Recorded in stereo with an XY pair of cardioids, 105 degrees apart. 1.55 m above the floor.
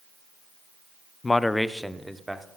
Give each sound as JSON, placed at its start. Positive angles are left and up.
{"t": 1.2, "sound": "a man speaking", "azimuth_deg": 25, "distance_m": 0.5}